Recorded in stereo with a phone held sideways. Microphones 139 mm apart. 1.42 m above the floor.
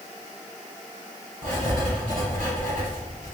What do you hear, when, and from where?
1.4 s writing: 75° right (ahead or behind), 1.4 m